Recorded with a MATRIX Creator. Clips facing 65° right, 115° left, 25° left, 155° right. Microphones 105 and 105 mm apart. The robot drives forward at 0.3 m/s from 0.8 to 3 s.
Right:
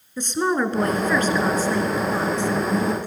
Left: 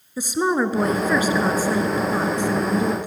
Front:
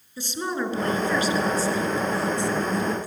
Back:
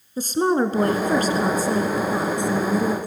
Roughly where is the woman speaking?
Behind.